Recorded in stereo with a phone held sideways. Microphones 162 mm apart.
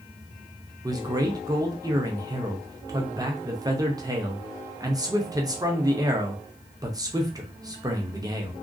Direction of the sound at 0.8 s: 25° right (ahead or behind).